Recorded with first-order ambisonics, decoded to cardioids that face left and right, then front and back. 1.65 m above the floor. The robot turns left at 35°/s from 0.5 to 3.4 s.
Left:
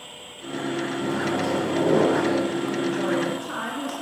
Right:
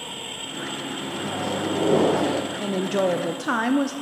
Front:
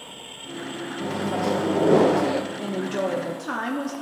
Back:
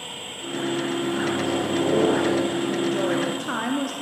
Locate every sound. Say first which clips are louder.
1.0 s a microwave: left 4 dB, back 1 dB; 25° left, 1.1 m; by 2.4 s 25° right, 1.1 m
2.6 s a woman speaking: right 2 dB, back 3 dB; 65° right, 0.7 m; by 3.9 s 95° right, 0.7 m